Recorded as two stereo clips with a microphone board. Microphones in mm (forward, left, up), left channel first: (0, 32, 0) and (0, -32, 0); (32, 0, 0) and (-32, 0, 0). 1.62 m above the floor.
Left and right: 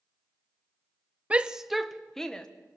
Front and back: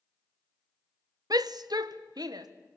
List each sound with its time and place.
1.3 s a shout: 160° right, 0.8 m; by 2.5 s 170° left, 1.9 m